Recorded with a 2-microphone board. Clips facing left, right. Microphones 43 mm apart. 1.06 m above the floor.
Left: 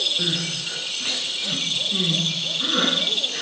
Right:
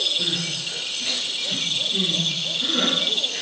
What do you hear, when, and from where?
0.2 s crying: 50° left (ahead or behind), 4.5 m